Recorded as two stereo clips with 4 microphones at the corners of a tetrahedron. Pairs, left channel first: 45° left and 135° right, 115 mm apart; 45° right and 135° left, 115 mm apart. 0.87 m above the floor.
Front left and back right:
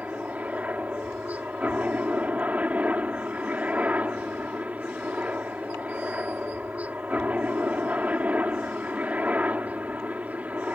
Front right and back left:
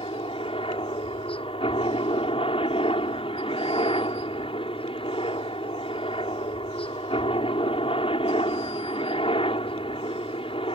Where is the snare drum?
No snare drum in this recording.